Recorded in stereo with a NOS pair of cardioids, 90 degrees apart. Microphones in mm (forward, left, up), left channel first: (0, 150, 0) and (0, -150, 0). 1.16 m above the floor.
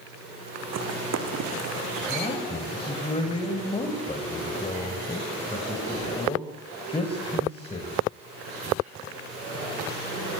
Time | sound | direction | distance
0.7 | running footsteps | 60° right | 5.5 m
2.1 | a man speaking | 20° left | 5.5 m